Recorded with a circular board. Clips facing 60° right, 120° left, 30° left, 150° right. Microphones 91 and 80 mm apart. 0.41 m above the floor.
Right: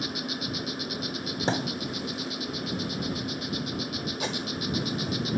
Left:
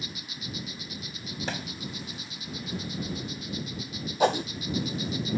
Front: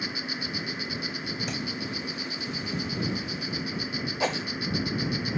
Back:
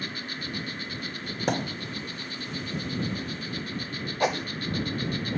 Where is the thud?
120° right.